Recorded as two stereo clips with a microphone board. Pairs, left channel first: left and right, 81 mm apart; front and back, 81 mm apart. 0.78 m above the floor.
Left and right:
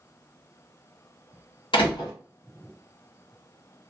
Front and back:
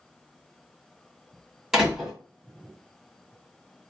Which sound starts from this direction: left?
A door slam, at 1.7 s.